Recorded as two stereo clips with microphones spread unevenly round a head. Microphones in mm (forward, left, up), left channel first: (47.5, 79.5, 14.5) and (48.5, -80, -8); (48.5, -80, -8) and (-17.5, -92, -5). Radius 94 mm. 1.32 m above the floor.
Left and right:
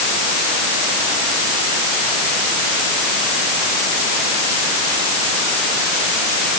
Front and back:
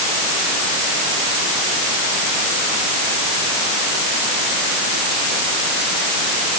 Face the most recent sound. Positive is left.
No sound to turn to.